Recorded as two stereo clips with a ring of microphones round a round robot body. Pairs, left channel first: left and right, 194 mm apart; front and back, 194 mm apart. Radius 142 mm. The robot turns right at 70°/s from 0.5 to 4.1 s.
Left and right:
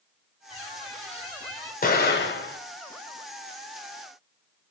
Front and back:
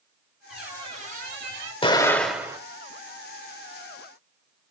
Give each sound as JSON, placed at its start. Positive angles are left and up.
{"t": 0.5, "sound": "a squeak", "azimuth_deg": 90, "distance_m": 7.0}
{"t": 1.8, "sound": "an explosion", "azimuth_deg": 55, "distance_m": 1.7}